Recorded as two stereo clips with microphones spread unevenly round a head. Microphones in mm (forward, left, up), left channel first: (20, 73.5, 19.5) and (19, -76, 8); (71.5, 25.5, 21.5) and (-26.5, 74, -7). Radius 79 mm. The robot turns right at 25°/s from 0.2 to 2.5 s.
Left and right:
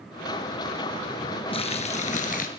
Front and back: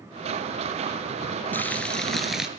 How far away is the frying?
About 2.5 m.